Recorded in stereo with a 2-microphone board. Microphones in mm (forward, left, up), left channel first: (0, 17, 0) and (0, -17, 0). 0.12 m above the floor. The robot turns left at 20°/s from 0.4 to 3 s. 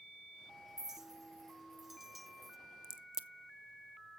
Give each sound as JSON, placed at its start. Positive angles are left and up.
{"t": 0.8, "sound": "a clink", "side_deg": -15, "distance_m": 0.8}
{"t": 2.8, "sound": "a crack", "side_deg": -20, "distance_m": 0.6}